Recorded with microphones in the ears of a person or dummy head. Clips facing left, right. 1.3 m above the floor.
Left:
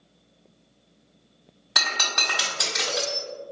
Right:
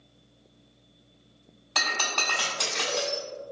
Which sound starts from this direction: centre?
Breaking glass, at 1.8 s.